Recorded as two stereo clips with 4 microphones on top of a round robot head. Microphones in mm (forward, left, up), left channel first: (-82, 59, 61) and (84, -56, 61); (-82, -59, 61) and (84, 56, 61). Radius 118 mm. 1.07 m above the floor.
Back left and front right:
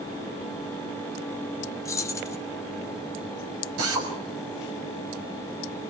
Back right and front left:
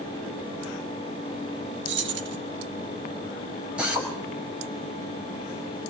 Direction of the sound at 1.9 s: 70° left.